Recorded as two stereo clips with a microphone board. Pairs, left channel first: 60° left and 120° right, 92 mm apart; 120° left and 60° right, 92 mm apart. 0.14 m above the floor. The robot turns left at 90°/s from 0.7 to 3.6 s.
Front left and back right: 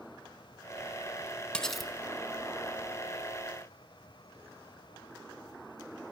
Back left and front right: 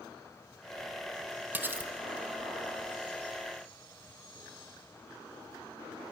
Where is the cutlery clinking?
10° right, 0.7 m; by 1.9 s 40° right, 0.7 m.